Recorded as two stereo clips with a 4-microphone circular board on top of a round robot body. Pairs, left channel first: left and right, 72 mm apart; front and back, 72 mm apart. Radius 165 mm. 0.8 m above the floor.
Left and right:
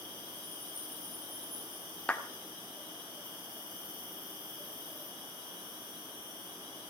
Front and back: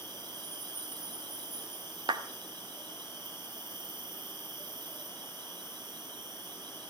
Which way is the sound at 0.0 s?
155° left.